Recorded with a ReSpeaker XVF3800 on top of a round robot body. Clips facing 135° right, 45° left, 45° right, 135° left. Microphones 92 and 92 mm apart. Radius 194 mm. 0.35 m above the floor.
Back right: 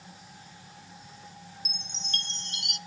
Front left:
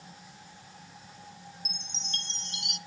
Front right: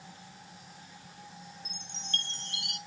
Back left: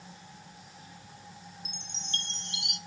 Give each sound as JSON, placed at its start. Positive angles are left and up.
{"t": 1.6, "sound": "a chime", "azimuth_deg": -160, "distance_m": 0.7}